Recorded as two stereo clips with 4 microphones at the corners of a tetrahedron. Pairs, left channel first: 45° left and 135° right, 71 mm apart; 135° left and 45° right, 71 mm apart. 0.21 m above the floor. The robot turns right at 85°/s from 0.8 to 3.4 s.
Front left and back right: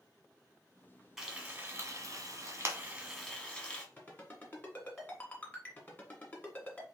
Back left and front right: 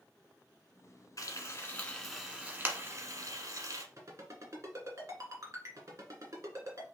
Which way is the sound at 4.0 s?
10° right.